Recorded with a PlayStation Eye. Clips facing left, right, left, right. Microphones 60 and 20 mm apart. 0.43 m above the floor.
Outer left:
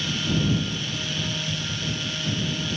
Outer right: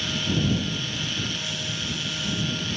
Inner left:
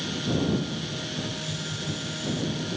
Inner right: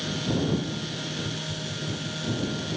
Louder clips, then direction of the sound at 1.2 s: Outer left 1 dB, even; 40° left (ahead or behind).